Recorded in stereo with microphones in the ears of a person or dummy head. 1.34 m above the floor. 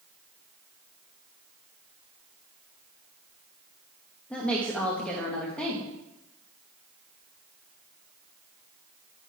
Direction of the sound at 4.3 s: Centre (ahead or behind).